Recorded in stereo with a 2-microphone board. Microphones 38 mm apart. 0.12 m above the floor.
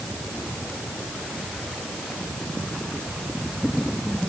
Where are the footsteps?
No footsteps in this recording.